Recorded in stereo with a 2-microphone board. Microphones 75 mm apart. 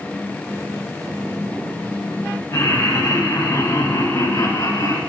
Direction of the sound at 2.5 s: 50° left (ahead or behind).